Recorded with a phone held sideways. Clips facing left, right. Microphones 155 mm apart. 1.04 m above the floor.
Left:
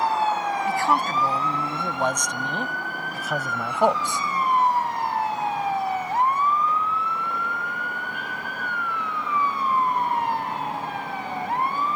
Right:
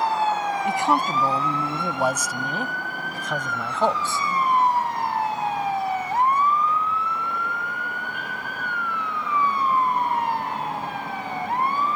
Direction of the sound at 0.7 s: 20° right (ahead or behind).